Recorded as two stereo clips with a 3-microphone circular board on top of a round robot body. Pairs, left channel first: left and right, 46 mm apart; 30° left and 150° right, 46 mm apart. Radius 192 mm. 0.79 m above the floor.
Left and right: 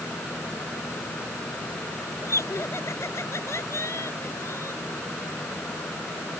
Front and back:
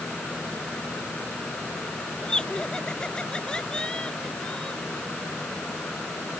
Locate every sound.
2.2 s laughter: 105° left